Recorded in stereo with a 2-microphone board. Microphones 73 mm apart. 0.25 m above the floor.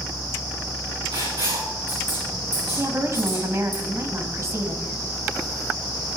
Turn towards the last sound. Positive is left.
turn(degrees=-40)  # may be behind; listen again after turning